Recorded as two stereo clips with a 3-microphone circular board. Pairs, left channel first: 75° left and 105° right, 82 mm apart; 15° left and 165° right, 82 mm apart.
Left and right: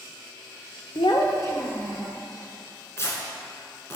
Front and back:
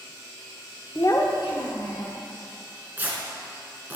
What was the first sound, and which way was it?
A child speaking, 75° left.